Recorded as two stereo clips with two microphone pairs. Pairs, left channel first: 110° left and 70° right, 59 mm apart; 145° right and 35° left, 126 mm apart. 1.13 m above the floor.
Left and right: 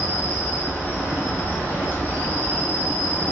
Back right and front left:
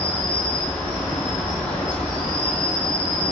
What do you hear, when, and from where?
0.0 s an insect: 140° left, 1.0 m